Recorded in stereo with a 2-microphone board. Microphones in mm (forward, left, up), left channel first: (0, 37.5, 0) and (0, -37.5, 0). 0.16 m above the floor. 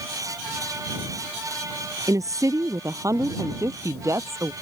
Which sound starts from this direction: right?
A woman speaking, at 2.1 s.